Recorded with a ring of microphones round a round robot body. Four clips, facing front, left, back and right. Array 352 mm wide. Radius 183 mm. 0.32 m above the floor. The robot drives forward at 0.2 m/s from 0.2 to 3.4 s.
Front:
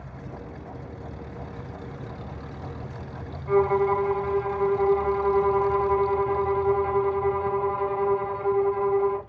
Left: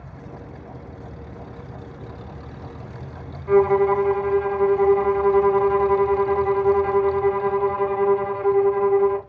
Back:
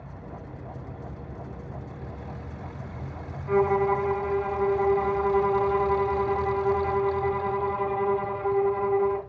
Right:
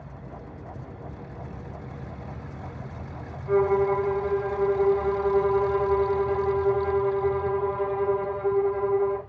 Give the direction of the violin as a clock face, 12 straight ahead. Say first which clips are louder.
Left 5 dB, front 1 dB; 9 o'clock.